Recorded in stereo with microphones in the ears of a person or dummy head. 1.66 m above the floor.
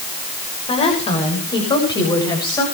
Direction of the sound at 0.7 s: 35° left (ahead or behind).